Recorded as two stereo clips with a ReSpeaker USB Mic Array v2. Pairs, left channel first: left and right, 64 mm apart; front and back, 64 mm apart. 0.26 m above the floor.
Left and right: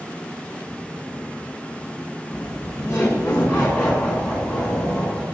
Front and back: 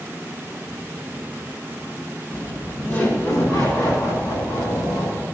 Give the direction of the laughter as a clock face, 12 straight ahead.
10 o'clock.